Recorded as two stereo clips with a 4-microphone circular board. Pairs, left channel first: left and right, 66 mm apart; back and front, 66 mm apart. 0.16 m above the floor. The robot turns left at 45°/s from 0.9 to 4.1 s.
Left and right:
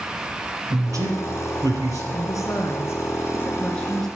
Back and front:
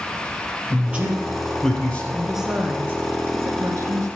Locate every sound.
0.7 s a man speaking: 65° right, 3.5 m; by 2.0 s 115° right, 3.5 m
2.1 s a woman speaking: 95° left, 2.0 m; by 4.1 s 5° left, 2.0 m